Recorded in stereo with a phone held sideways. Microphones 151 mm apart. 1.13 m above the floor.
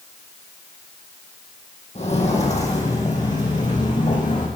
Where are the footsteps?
45° left (ahead or behind), 2.5 m; by 4.5 s 55° left (ahead or behind), 4 m.